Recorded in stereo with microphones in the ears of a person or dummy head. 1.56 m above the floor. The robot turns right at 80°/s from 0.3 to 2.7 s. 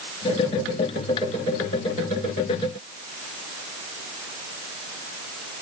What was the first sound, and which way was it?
Only background noise.